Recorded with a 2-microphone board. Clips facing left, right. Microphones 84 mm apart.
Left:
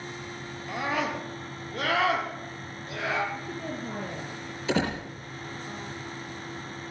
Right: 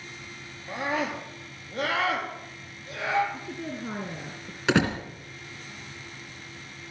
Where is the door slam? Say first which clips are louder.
Right 4 dB; 75° right (ahead or behind), 2.5 m.